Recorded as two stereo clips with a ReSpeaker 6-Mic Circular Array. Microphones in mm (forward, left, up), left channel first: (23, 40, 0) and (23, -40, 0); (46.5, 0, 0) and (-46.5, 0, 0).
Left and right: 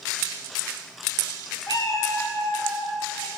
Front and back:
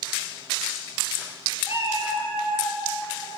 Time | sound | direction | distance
1.7 | a cat meowing | 120° left | 1.4 m